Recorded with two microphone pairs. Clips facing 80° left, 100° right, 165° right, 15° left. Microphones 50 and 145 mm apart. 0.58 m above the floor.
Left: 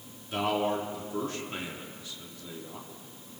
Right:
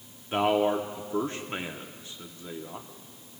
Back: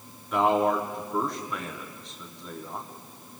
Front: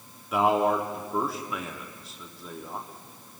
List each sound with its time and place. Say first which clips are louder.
0.3 s a man speaking: right 4 dB, even; 65° right, 0.9 m